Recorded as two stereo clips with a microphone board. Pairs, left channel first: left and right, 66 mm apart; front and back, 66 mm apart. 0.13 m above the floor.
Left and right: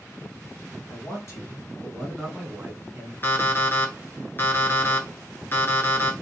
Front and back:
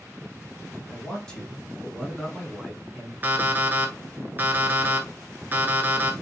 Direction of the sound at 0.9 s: 75° left.